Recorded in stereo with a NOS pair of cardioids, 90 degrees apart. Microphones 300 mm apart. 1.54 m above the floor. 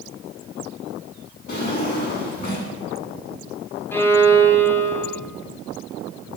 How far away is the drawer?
About 4.5 m.